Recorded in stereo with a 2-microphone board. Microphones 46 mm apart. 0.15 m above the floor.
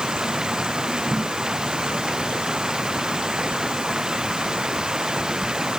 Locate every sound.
0.0 s running water: 15° right (ahead or behind)